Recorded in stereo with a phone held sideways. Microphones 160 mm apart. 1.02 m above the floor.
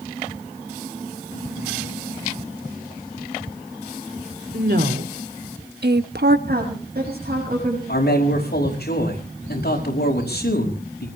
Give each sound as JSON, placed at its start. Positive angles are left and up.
{"t": 4.5, "sound": "a woman speaking", "side_deg": -80, "distance_m": 2.5}
{"t": 6.5, "sound": "a woman speaking", "side_deg": -70, "distance_m": 6.5}
{"t": 7.9, "sound": "a man speaking", "side_deg": 80, "distance_m": 5.0}